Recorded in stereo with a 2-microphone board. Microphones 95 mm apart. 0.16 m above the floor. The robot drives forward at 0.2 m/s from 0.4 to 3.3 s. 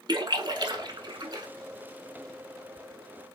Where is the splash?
50° right (ahead or behind), 0.7 m.